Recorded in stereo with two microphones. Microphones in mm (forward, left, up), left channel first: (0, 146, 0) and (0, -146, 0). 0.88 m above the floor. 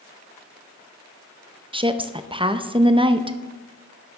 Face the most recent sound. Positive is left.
turn(degrees=-20)  # may be behind; listen again after turning